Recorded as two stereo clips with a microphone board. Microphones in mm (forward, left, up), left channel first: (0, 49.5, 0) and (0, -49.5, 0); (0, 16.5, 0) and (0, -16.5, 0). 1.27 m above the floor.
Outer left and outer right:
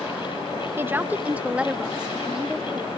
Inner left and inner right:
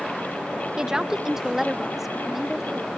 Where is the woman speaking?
20° right (ahead or behind); by 2.9 s 5° right (ahead or behind).